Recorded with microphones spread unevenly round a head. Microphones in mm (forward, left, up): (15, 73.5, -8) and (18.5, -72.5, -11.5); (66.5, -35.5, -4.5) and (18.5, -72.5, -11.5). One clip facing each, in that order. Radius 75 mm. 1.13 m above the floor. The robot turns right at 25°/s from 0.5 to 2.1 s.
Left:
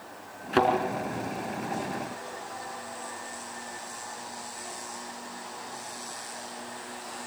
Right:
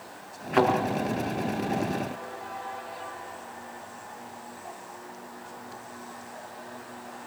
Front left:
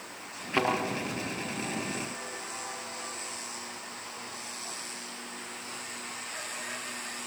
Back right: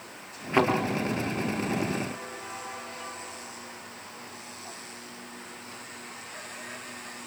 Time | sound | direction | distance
0.5 | a thud | 140° left | 4 m